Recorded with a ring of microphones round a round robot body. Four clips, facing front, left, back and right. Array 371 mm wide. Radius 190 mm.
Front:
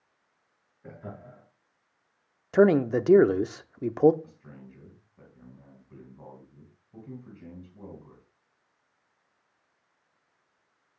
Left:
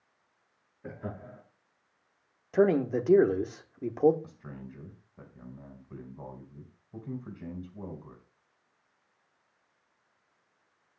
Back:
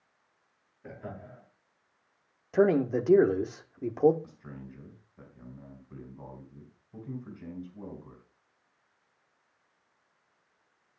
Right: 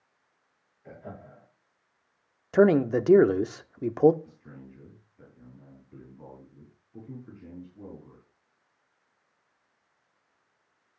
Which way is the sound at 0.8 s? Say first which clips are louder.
Left 3 dB, even; 80° left.